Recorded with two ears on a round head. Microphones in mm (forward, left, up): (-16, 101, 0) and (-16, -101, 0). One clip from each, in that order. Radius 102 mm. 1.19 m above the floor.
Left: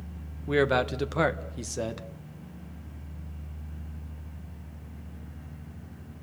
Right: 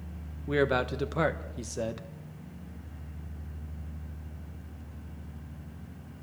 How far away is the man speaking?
About 1.0 m.